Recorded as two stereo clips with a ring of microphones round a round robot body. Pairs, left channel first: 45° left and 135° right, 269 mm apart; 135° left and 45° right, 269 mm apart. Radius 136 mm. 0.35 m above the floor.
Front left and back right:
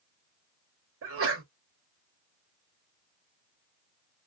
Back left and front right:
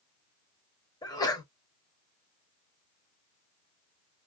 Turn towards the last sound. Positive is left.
turn(degrees=-150)